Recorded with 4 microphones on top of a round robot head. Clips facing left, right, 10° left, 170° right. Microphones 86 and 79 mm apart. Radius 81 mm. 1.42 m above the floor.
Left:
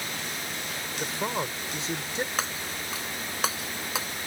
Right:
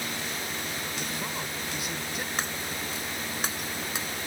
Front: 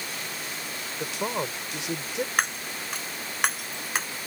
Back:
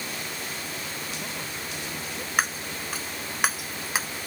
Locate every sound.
1.0 s a man speaking: 25° left
2.4 s breaking glass: 100° left